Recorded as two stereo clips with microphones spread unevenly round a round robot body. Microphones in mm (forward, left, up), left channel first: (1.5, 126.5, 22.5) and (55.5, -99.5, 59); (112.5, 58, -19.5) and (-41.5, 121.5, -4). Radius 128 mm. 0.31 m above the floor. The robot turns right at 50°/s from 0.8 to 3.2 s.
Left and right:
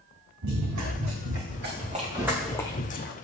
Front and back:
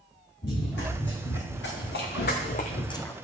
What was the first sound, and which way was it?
Running footsteps, 80° right.